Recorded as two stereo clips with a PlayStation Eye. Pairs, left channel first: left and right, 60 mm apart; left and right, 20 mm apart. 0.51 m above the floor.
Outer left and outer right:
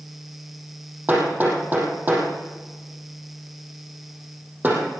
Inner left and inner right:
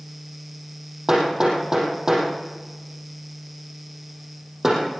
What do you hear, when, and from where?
1.1 s hammering: 30° right (ahead or behind), 6 m